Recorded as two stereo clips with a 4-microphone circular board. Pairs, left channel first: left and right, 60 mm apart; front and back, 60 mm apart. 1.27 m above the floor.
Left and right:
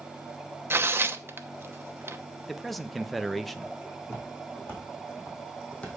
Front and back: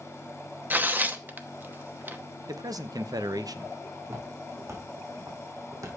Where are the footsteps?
145° left, 4.5 m; by 5.9 s 155° left, 3 m.